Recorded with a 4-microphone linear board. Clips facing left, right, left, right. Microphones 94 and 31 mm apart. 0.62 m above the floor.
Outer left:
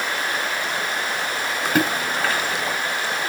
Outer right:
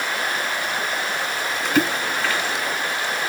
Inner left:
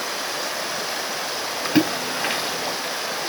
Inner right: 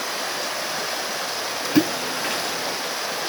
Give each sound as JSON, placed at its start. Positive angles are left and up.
{"t": 1.6, "sound": "a splash", "side_deg": 40, "distance_m": 1.7}